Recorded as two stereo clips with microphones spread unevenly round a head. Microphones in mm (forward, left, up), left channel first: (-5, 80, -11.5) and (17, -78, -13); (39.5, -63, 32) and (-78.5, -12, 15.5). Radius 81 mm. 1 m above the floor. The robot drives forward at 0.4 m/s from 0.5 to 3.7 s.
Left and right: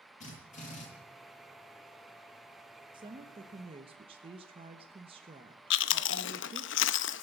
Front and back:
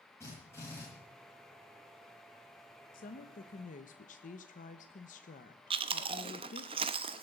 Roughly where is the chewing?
Left.